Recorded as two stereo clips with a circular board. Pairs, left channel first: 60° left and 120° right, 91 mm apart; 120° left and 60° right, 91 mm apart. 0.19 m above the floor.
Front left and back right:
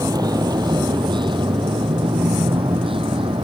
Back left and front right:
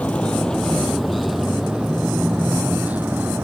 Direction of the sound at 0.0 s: 165° right.